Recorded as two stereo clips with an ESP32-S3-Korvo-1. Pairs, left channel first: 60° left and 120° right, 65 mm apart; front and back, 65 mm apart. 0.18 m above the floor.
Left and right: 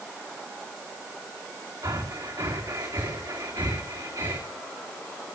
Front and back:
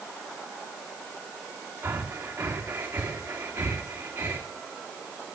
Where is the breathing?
120° right, 3.5 m.